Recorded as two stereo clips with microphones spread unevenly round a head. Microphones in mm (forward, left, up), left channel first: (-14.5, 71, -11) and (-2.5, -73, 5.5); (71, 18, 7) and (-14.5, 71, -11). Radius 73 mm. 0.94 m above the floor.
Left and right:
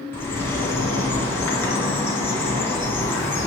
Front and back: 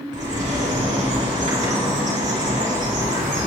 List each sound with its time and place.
0.1 s a bird: 170° left, 2 m